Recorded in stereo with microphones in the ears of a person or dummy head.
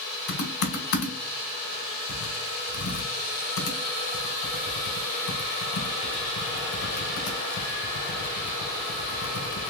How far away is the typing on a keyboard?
About 1.1 m.